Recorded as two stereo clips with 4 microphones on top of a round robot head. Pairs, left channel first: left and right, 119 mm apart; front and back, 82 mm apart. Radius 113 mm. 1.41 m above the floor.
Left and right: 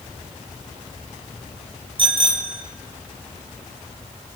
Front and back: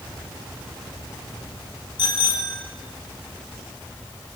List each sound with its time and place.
2.0 s a bicycle bell: 45° right, 3.5 m